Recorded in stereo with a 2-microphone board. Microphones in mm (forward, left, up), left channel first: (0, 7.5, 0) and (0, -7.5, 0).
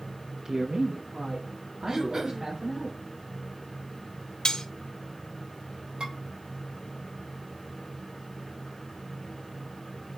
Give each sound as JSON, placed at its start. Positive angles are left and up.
{"t": 0.5, "sound": "a man speaking", "side_deg": -35, "distance_m": 0.5}
{"t": 1.9, "sound": "throat clearing", "side_deg": -30, "distance_m": 1.0}
{"t": 4.5, "sound": "cutlery clinking", "side_deg": 55, "distance_m": 1.1}
{"t": 6.0, "sound": "dishes clattering", "side_deg": -85, "distance_m": 2.5}